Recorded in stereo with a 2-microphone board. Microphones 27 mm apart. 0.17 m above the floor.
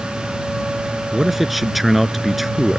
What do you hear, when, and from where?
1.1 s a man speaking: 5° right (ahead or behind)